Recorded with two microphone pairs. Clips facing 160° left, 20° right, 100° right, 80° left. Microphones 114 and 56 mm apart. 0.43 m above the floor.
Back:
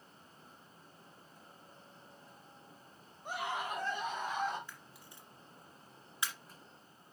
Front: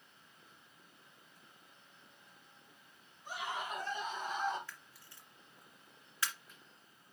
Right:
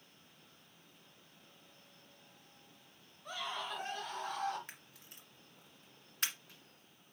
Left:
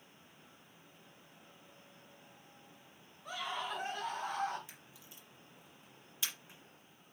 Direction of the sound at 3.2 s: 165° left.